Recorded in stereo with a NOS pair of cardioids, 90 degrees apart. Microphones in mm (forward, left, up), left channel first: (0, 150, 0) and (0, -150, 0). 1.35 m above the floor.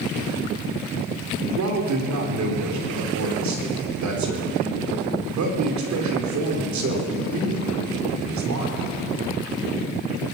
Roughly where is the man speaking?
Ahead right.